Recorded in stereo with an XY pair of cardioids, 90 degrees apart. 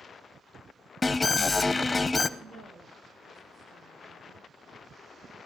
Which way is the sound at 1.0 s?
25° left.